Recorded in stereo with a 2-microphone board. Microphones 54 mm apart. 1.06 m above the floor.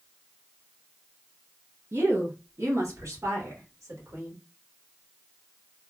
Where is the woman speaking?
50° right (ahead or behind), 0.7 m; by 4.3 s 85° right, 1.9 m.